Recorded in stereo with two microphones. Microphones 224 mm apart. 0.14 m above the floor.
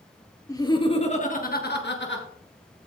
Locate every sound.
0.5 s laughter: 15° left (ahead or behind), 2.5 m; by 2.3 s 55° left (ahead or behind), 2.5 m